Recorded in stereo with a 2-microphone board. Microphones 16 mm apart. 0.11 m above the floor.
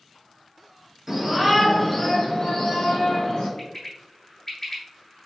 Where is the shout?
20° right (ahead or behind), 1.7 m; by 3.5 s 60° left (ahead or behind), 3 m.